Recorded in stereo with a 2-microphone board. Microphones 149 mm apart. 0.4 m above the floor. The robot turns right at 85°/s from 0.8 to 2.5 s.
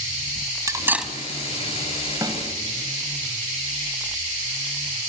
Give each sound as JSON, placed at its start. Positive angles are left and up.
{"t": 0.7, "sound": "cutlery clinking", "side_deg": -20, "distance_m": 1.4}
{"t": 2.2, "sound": "a snare drum", "side_deg": -25, "distance_m": 2.5}